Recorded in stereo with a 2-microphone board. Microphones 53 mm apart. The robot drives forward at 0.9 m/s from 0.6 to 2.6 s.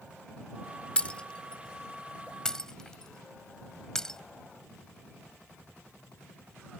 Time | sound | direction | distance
1.0 | breaking glass | 20° left (ahead or behind) | ?